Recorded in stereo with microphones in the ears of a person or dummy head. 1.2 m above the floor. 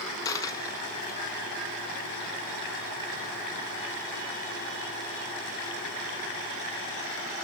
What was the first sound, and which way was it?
A dropped coin, 20° left (ahead or behind).